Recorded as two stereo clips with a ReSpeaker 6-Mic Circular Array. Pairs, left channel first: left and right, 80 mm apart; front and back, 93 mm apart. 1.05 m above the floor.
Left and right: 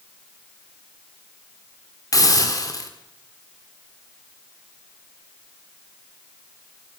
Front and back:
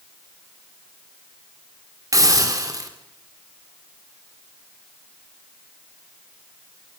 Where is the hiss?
130° left, 4 m.